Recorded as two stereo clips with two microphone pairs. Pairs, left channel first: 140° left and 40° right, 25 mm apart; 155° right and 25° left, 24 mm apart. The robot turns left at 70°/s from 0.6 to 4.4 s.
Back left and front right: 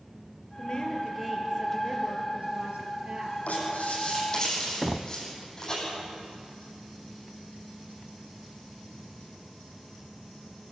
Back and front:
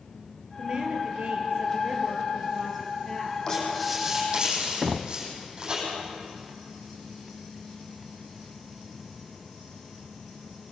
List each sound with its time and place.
0.6 s a woman speaking: 90° left, 4.5 m; by 3.4 s 105° right, 4.5 m
3.5 s writing: 145° left, 9.5 m; by 5.8 s 80° left, 9.5 m
4.8 s knocking: 35° left, 0.7 m